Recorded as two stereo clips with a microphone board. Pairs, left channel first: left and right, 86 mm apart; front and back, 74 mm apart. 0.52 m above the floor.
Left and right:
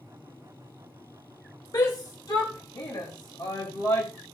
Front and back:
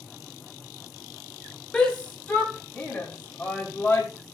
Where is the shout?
75° left, 1.8 m; by 4.1 s 65° left, 3 m.